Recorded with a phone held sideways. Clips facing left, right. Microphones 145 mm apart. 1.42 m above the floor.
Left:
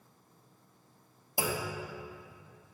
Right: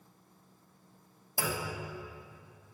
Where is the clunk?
15° left (ahead or behind), 0.8 m.